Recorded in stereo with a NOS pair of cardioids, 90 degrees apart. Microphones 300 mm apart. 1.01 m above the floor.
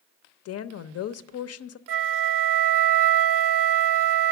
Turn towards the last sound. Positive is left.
turn(degrees=-50)